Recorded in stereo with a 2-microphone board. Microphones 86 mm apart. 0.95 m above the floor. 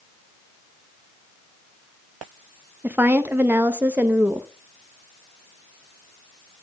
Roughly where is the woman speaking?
Right.